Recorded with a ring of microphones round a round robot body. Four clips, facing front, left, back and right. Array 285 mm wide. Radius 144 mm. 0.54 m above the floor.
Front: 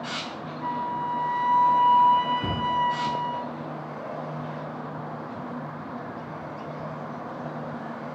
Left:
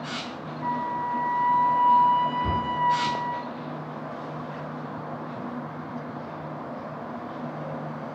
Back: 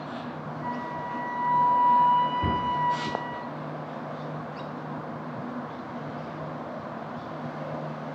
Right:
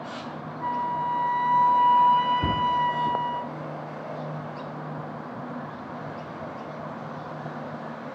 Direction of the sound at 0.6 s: 55° right.